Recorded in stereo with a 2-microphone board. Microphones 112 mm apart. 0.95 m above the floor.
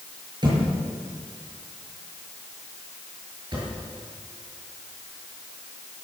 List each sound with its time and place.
0.4 s a thud: 40° right (ahead or behind), 7 m